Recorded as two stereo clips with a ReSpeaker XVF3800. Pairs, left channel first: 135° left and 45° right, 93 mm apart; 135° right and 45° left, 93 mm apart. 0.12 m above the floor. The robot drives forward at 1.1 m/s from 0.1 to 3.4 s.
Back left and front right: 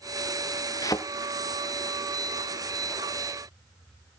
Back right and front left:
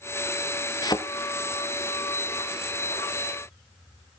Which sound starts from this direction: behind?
A thud, at 0.8 s.